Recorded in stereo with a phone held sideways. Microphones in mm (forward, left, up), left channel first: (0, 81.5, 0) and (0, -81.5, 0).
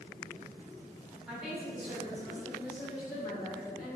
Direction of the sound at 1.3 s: 5° right (ahead or behind).